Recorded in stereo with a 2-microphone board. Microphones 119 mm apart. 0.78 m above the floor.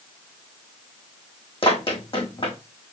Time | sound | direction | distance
1.6 | running footsteps | 50° left (ahead or behind) | 2.5 m